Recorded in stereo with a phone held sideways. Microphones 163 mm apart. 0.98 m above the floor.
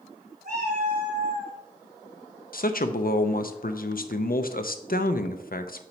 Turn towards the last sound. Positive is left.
turn(degrees=65)  # may be behind; listen again after turning